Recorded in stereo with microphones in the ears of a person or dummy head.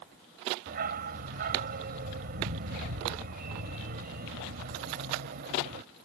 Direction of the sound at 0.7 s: 45° right (ahead or behind).